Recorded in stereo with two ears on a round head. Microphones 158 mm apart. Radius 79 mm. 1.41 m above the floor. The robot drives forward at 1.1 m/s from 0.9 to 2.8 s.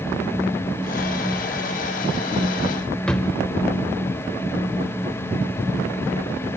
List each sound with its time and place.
3.1 s a drawer: 5° left (ahead or behind), 1.2 m